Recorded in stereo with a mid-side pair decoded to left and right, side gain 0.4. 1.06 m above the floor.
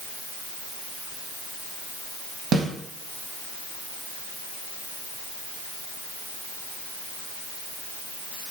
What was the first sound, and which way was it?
A snare drum, 50° right.